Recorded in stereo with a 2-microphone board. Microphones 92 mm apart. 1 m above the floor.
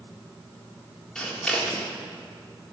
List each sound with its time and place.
1.1 s scissors: 10° left (ahead or behind), 1.6 m